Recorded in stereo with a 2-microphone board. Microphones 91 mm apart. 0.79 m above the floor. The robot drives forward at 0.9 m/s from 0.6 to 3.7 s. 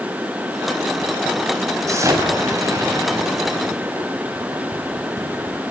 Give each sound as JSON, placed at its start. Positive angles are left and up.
{"t": 1.9, "sound": "an explosion", "side_deg": -35, "distance_m": 6.5}